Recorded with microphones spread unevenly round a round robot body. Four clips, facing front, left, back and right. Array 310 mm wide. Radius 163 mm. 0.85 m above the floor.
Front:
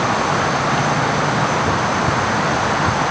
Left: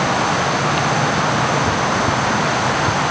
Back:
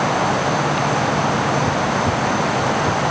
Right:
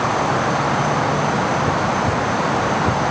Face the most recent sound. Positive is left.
No sound to turn to.